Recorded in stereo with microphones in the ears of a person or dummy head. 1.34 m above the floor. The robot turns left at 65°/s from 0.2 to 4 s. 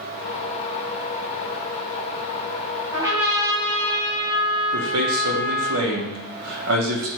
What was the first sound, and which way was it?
A trumpet, 150° right.